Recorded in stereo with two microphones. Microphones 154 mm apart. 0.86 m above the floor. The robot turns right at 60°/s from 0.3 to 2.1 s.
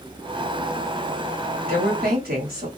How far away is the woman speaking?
About 1.6 m.